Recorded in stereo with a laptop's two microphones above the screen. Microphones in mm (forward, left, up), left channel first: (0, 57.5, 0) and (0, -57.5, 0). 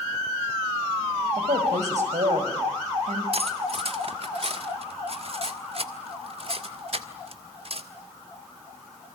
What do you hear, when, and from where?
1.4 s a woman speaking: 85° right, 6 m
3.3 s cutlery clinking: 55° right (ahead or behind), 1.7 m